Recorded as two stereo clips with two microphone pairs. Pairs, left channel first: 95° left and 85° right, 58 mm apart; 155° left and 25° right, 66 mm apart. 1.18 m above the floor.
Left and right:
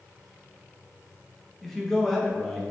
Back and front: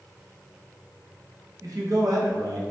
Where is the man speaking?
5° left, 0.8 m.